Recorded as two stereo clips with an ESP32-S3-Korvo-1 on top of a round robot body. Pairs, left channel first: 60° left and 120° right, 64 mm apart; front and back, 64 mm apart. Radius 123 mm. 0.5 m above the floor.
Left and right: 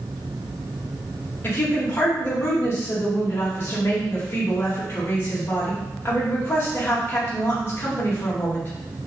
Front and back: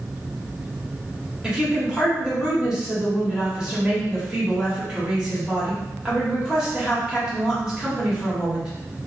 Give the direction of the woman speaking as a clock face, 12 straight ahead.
8 o'clock.